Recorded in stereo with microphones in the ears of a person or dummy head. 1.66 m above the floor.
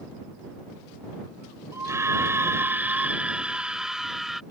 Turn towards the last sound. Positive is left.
turn(degrees=0)  # may be behind; listen again after turning